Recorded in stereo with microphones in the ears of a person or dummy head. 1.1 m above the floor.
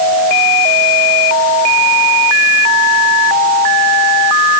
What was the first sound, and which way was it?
Only background noise.